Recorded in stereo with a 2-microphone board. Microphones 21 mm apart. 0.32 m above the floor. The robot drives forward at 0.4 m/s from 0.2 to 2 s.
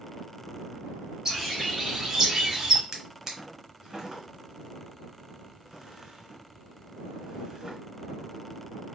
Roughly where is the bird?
Right.